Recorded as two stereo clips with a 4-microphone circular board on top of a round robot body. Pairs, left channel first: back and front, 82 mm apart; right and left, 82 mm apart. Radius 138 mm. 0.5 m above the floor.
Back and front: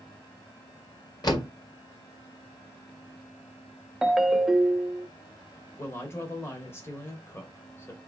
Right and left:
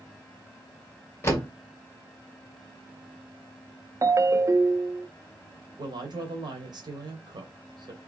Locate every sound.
1.2 s a door slam: 150° right, 1.9 m
4.0 s a ringtone: 85° left, 0.8 m
5.8 s a woman speaking: 120° left, 2.0 m